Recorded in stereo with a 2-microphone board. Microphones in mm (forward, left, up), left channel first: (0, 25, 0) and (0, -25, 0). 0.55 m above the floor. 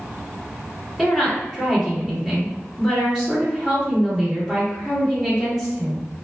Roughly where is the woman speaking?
Centre.